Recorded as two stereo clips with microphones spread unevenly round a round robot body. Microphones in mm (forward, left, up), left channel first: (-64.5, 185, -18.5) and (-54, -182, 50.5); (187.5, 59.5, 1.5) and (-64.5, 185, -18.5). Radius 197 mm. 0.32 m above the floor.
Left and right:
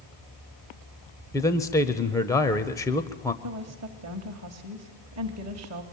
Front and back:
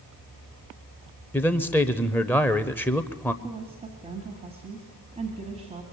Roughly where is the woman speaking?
Behind right.